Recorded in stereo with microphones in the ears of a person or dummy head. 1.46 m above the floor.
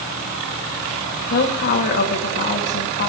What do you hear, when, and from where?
1.3 s a woman speaking: 55° left (ahead or behind), 3 m